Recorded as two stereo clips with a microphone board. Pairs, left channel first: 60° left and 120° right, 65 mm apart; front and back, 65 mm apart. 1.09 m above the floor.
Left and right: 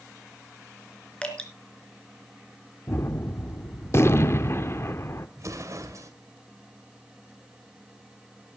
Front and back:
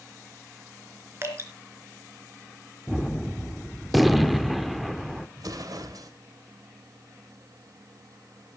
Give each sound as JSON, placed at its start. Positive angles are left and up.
{"t": 1.2, "sound": "dripping", "azimuth_deg": 130, "distance_m": 3.0}
{"t": 2.9, "sound": "a gunshot", "azimuth_deg": 90, "distance_m": 0.9}
{"t": 5.4, "sound": "an explosion", "azimuth_deg": -160, "distance_m": 2.0}